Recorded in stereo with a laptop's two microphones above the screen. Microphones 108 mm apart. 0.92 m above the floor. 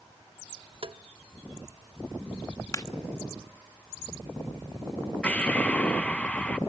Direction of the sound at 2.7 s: 30° left (ahead or behind).